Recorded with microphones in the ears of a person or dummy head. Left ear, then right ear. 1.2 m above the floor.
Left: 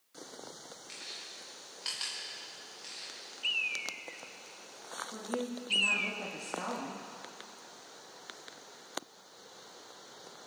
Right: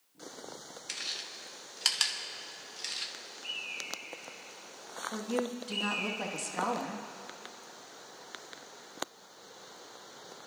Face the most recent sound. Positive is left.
turn(degrees=-80)